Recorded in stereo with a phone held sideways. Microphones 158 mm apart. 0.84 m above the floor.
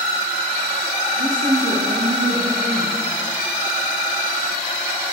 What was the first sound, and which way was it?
A woman speaking, 30° right (ahead or behind).